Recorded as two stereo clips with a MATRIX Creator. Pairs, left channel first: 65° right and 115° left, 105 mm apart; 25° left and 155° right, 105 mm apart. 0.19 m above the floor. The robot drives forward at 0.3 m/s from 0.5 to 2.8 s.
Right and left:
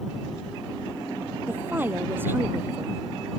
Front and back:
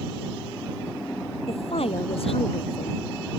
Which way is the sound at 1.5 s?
40° left.